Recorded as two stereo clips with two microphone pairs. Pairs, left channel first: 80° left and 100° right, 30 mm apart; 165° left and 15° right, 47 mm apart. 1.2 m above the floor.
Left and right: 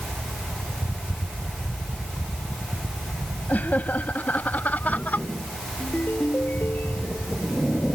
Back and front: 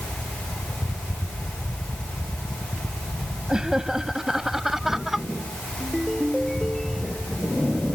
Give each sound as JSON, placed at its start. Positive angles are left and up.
{"t": 3.5, "sound": "laughter", "azimuth_deg": 60}
{"t": 5.8, "sound": "a ringtone", "azimuth_deg": 75}